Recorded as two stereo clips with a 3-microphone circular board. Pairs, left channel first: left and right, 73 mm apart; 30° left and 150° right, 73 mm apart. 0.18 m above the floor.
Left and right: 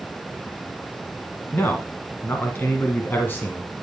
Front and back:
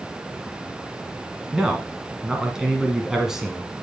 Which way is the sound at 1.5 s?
130° left.